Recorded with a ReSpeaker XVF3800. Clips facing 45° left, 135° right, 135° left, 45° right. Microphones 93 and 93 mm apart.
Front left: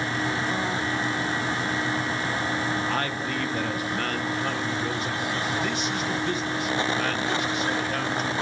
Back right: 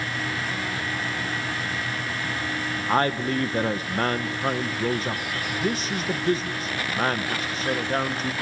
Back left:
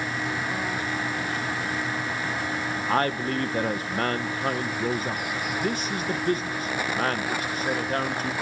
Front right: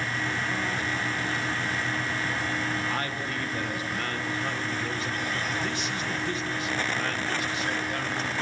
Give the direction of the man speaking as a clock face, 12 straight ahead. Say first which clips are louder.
Back right 5 dB, back left 7 dB; 6 o'clock.